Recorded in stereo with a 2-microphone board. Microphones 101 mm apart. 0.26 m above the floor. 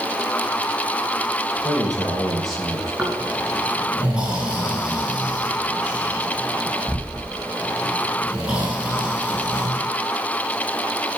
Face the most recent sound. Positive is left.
turn(degrees=-10)  # may be behind; listen again after turning